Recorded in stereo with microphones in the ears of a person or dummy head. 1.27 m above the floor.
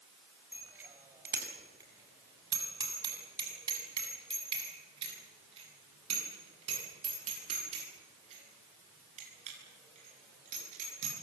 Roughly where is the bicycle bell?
Centre.